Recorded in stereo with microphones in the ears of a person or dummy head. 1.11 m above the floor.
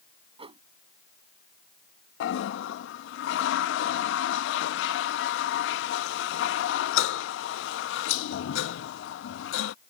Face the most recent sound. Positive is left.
turn(degrees=80)